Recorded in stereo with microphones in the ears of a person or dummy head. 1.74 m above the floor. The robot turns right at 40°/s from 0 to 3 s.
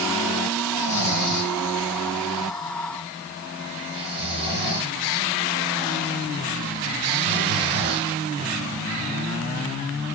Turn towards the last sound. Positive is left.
turn(degrees=-25)  # may be behind; listen again after turning